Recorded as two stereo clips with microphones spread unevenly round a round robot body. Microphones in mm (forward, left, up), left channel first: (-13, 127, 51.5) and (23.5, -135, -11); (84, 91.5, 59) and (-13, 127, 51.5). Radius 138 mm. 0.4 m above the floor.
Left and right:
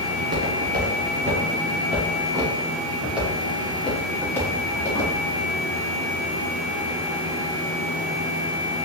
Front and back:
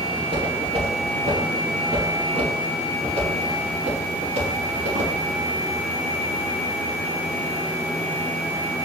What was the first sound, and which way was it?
Footsteps, 135° right.